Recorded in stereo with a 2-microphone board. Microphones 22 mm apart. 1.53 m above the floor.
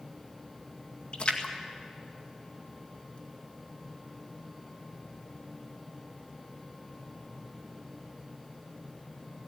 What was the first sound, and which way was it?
A splash, 55° left (ahead or behind).